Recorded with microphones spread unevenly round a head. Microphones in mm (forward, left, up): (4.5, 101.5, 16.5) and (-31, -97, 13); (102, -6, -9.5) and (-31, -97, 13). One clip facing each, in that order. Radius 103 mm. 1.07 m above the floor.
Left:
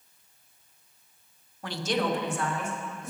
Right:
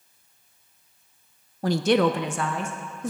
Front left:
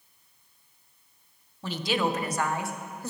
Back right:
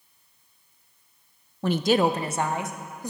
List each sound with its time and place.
1.6 s a woman speaking: 135° right, 0.6 m; by 3.1 s 65° right, 1.8 m